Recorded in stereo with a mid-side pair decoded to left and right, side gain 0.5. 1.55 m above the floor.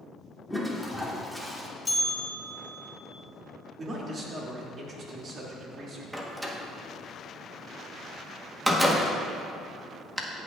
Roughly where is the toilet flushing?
Ahead.